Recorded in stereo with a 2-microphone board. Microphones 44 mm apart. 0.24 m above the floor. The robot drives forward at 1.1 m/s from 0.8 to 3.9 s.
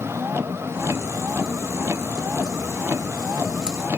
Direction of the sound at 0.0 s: 90° right.